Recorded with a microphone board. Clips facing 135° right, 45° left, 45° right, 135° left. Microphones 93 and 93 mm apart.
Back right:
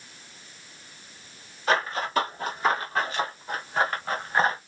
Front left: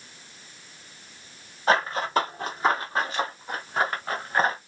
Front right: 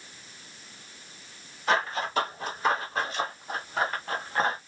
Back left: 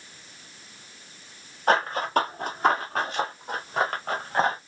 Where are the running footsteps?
100° left, 3.5 m; by 4.6 s 130° left, 4 m.